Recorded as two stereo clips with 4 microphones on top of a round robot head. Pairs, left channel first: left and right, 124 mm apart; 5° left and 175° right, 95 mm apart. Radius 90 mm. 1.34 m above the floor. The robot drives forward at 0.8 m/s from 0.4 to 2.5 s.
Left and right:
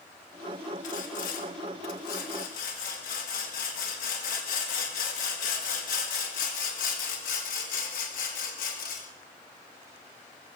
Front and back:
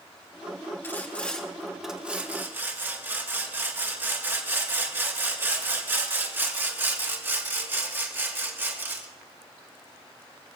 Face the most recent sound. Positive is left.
turn(degrees=120)